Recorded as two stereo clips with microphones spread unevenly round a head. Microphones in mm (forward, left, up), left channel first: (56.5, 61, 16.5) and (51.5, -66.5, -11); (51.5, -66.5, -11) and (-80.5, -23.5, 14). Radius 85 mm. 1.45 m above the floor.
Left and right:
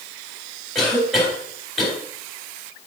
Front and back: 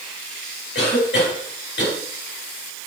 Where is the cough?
Straight ahead, 5 m.